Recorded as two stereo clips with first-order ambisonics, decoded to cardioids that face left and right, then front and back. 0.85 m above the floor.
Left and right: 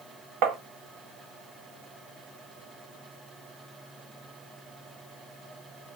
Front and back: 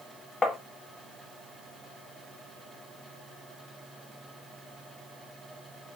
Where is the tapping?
70° right, 1.1 m.